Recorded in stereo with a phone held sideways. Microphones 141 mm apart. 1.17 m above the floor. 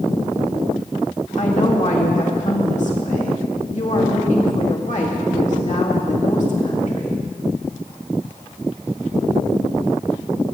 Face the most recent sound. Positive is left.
turn(degrees=60)  # may be behind; listen again after turning